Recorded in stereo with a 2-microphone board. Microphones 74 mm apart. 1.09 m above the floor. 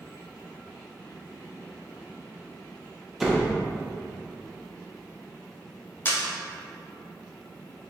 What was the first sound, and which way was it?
A door slam, 5° right (ahead or behind).